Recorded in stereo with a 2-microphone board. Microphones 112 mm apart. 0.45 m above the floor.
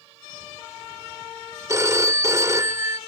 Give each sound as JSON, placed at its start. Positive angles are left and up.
{"t": 1.7, "sound": "a phone ringing", "side_deg": -25, "distance_m": 0.9}